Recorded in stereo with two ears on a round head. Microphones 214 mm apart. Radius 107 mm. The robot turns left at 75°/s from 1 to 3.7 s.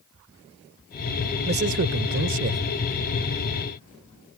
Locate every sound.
1.4 s a man speaking: 45° right; by 2.6 s 130° right